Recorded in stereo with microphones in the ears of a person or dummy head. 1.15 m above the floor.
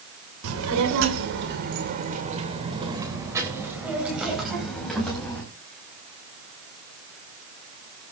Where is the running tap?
No running tap in this recording.